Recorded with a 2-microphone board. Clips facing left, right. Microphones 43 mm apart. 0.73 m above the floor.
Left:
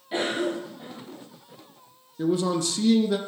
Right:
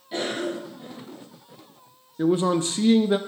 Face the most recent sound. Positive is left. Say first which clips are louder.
# right 3 dB
turn(degrees=-30)  # may be behind; listen again after turning